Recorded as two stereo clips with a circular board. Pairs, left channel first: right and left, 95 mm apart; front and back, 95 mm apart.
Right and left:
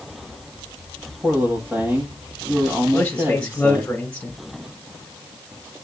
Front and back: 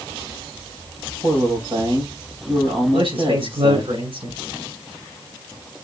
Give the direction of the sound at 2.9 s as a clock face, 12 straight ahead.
6 o'clock.